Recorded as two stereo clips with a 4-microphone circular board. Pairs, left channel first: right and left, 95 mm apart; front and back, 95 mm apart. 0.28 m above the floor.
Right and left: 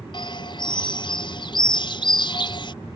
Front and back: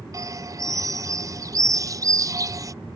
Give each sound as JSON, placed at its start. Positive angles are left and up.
{"t": 0.1, "sound": "a bird", "azimuth_deg": -125}